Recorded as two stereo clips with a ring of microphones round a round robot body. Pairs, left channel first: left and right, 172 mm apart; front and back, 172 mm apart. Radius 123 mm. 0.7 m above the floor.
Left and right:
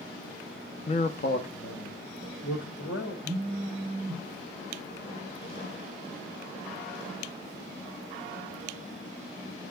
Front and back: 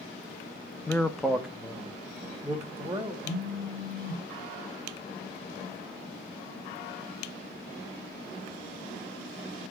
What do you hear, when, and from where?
0.9 s a man speaking: 65° left, 0.6 m; by 3.1 s 105° left, 2.5 m
3.2 s a phone buzzing: 30° right, 0.7 m